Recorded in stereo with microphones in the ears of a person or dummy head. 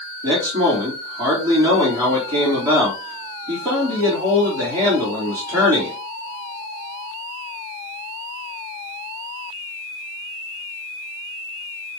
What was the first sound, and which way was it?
A man speaking, 15° right (ahead or behind).